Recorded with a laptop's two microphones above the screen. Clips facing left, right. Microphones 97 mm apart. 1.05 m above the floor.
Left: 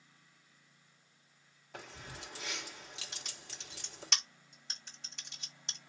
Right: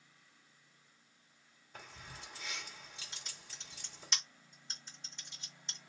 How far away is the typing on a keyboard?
About 2 m.